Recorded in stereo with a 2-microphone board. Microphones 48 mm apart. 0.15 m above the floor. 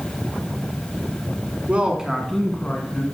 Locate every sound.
1.7 s a man speaking: 25° right (ahead or behind), 1.6 m; by 3.0 s 35° left (ahead or behind), 1.8 m